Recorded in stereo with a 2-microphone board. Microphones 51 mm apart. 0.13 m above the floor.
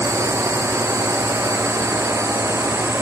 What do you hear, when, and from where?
0.0 s a drone: 80° right; by 3.0 s 70° right (ahead or behind)